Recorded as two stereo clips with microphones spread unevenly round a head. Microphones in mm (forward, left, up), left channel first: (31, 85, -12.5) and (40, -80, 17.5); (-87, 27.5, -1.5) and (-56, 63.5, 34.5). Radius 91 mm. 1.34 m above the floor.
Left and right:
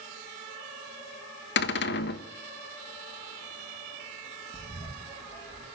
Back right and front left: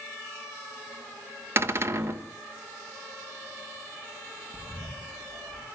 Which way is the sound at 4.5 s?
40° left.